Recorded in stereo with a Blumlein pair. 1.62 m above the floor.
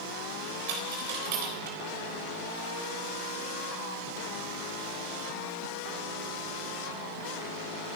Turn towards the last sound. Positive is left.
turn(degrees=-50)